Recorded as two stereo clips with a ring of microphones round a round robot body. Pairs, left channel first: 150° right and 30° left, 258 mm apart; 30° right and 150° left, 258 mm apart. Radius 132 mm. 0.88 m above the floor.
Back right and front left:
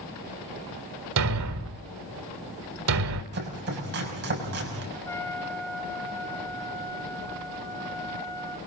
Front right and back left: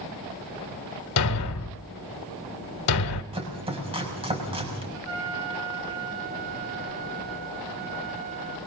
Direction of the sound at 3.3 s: 80° left.